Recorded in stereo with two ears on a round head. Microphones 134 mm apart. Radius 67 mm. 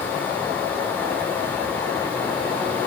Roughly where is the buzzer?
I don't hear a buzzer.